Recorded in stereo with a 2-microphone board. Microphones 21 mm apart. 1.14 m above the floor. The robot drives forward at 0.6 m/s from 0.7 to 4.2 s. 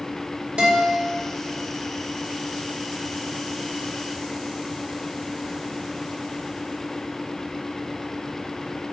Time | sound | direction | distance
0.6 | a guitar | 65° right (ahead or behind) | 4 m